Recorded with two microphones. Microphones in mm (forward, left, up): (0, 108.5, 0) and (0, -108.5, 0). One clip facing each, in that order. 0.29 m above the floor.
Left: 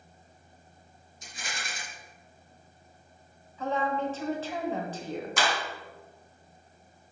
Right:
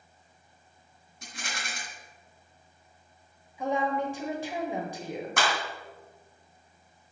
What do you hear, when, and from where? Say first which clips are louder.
1.2 s a rattle: right 1 dB; 70° right (ahead or behind), 2.5 m
3.6 s a woman speaking: right 1 dB; 15° right (ahead or behind), 1.2 m
5.4 s a clap: even; 60° right (ahead or behind), 1.9 m